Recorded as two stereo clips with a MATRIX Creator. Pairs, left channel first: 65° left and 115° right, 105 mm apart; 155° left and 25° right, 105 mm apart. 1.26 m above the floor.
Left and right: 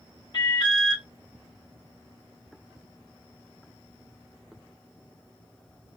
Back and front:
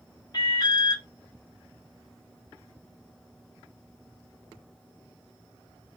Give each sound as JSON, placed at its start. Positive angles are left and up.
{"t": 0.3, "sound": "an alarm", "azimuth_deg": 110, "distance_m": 0.8}